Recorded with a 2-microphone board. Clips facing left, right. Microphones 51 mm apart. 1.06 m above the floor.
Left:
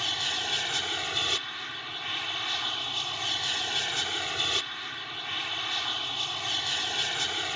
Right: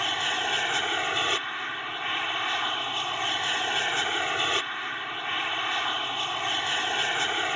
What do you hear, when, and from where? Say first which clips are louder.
0.0 s an aircraft: right 5 dB; 25° right (ahead or behind)